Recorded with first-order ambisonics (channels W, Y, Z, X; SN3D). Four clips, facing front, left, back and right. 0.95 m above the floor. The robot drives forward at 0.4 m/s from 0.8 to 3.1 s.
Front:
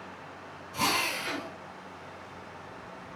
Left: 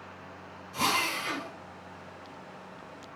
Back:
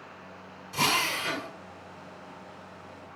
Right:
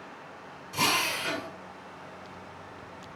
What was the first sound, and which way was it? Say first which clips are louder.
A drill: right 1 dB, back 2 dB; 145° right.